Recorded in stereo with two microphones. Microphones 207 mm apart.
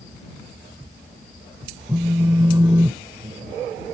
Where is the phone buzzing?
15° right (ahead or behind).